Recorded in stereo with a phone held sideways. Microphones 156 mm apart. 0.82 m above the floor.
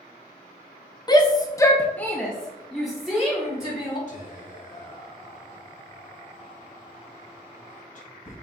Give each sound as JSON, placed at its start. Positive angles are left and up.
{"t": 1.1, "sound": "a shout", "side_deg": 25, "distance_m": 0.6}
{"t": 4.1, "sound": "whispering", "side_deg": 50, "distance_m": 3.0}